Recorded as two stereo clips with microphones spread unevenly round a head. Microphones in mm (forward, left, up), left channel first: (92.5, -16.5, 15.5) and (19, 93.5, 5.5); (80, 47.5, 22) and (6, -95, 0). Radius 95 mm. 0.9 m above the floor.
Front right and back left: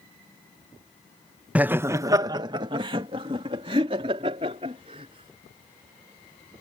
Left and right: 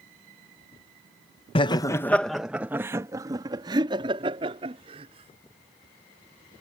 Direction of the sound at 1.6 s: 70° left.